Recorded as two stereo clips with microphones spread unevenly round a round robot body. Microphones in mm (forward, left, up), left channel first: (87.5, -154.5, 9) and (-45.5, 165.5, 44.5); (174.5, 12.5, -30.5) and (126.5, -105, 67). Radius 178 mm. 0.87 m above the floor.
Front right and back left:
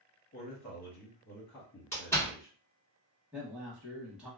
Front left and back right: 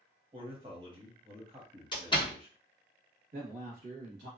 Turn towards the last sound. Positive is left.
turn(degrees=-155)